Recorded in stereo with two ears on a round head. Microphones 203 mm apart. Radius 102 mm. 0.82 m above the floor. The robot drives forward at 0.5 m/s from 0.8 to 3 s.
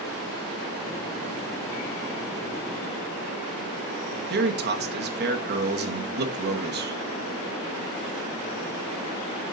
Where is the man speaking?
45° right (ahead or behind), 1.0 m.